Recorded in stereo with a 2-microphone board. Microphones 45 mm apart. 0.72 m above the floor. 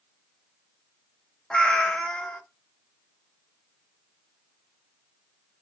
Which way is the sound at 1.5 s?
20° left (ahead or behind).